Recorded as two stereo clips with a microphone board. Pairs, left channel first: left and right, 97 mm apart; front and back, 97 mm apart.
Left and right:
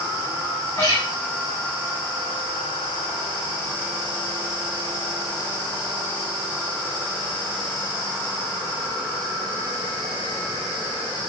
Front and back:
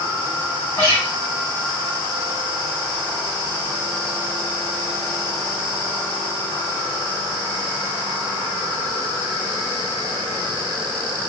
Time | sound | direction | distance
0.8 | a guitar | 50° left | 2 m